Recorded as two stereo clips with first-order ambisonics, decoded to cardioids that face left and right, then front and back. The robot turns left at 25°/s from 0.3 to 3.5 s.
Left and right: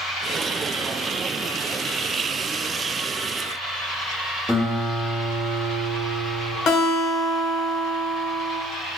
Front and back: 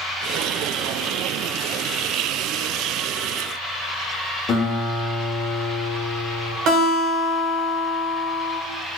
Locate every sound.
4.5 s a guitar: 5° left, 0.6 m
6.7 s a guitar: 140° left, 0.9 m